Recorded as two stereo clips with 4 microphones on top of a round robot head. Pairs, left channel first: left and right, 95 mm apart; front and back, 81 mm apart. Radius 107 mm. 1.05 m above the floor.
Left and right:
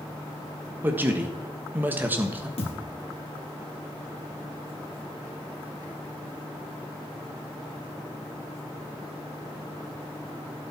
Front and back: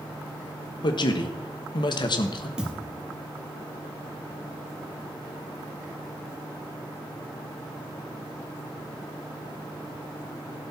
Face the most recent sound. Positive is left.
turn(degrees=100)